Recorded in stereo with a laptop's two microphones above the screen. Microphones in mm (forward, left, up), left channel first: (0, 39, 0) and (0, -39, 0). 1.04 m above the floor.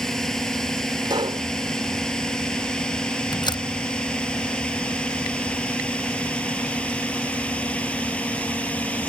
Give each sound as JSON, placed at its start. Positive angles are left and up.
{"t": 0.0, "sound": "a drone", "side_deg": 5}
{"t": 1.1, "sound": "a pop", "side_deg": -80}
{"t": 3.3, "sound": "a door slam", "side_deg": 80}